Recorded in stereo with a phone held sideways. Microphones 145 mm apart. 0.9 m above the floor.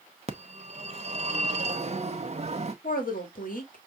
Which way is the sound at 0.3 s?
45° right (ahead or behind).